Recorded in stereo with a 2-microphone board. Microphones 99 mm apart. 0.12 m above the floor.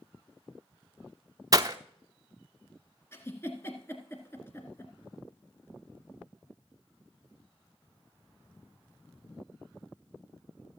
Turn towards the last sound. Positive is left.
turn(degrees=25)  # may be behind; listen again after turning